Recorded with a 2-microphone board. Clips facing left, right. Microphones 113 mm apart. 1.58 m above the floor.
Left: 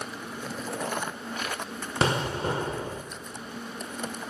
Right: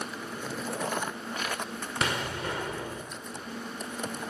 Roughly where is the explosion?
Left.